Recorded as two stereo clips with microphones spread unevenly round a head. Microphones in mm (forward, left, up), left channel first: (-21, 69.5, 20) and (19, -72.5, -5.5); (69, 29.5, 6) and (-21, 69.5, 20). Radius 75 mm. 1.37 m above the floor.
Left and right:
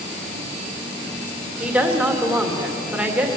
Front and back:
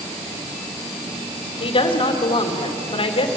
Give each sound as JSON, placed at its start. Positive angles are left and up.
{"t": 1.6, "sound": "a woman speaking", "azimuth_deg": 10, "distance_m": 2.5}